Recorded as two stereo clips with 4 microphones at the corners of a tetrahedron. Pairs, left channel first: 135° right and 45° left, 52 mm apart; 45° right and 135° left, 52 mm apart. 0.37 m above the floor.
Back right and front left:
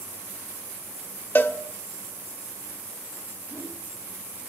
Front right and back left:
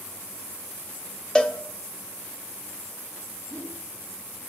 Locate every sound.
1.4 s a cowbell: 115° right, 0.7 m
3.5 s a whoosh: 5° left, 2.5 m